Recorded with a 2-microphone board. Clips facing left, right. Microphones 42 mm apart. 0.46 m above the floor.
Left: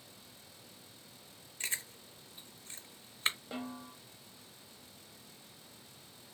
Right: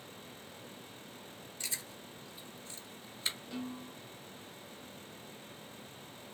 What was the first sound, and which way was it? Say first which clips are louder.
Chewing: left 4 dB; 40° left (ahead or behind).